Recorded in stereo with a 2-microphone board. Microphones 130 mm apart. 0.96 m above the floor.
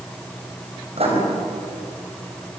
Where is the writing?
50° right (ahead or behind), 6 m.